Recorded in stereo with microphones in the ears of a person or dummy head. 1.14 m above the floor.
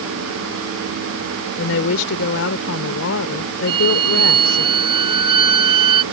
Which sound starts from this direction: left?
A woman speaking, at 1.6 s.